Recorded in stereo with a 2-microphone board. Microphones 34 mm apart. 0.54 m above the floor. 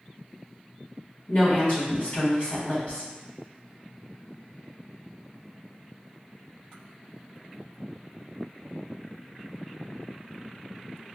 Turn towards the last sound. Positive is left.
turn(degrees=55)  # may be behind; listen again after turning